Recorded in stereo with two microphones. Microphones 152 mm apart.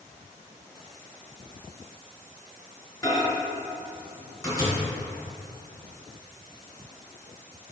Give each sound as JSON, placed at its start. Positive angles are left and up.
{"t": 3.0, "sound": "a microwave", "side_deg": 25, "distance_m": 0.9}